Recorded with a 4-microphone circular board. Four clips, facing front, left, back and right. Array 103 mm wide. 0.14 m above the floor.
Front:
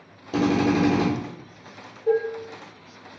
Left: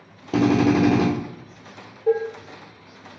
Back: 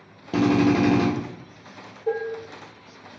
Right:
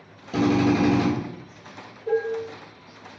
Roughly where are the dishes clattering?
Left.